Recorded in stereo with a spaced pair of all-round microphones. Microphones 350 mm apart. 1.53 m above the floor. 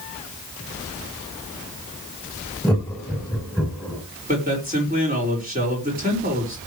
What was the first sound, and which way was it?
Laughter, centre (ahead or behind).